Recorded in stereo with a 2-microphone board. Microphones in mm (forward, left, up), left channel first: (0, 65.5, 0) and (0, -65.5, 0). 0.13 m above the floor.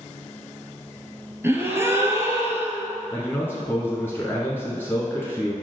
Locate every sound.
1.4 s a gasp: 20° right (ahead or behind), 1.0 m
3.1 s a man speaking: 15° left (ahead or behind), 1.3 m